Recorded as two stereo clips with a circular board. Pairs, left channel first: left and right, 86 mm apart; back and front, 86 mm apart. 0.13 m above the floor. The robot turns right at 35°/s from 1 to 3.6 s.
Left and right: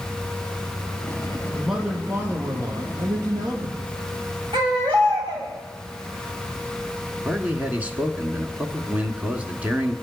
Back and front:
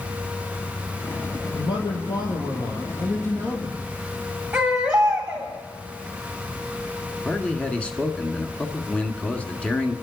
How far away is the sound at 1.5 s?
About 3 m.